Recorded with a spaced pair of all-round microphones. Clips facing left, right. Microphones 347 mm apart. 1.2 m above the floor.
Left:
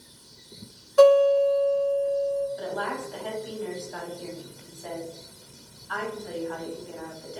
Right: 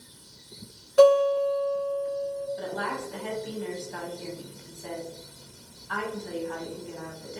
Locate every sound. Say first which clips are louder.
1.0 s a guitar: left 2 dB; 45° right (ahead or behind), 1.7 m
2.6 s a woman speaking: left 1 dB; 35° right (ahead or behind), 0.9 m